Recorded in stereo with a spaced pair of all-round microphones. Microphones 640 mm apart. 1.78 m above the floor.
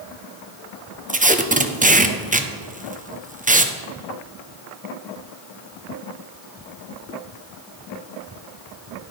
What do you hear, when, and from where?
1.1 s tape being pulled: 15° right (ahead or behind), 0.5 m